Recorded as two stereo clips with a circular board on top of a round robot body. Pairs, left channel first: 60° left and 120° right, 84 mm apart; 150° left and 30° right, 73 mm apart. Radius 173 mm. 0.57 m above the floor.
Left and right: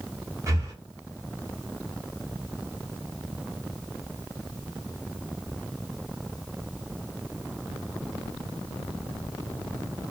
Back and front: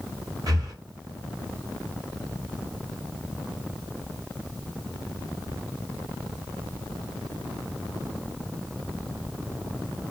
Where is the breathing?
70° right, 1.0 m.